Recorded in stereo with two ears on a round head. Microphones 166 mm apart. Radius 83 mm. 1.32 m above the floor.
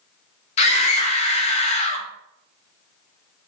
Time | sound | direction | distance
0.6 | a scream | 35° left (ahead or behind) | 0.8 m